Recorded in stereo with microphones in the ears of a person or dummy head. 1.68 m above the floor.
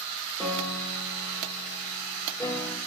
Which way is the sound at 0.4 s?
10° left (ahead or behind).